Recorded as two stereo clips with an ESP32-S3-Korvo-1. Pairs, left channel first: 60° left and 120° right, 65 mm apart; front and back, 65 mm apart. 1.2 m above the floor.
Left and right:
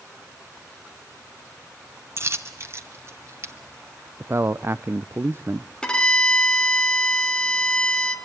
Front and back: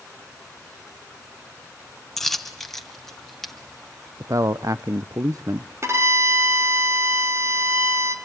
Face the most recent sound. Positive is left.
turn(degrees=135)